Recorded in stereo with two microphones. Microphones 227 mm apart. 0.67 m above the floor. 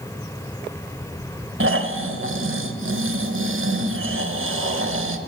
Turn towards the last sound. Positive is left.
turn(degrees=-65)  # may be behind; listen again after turning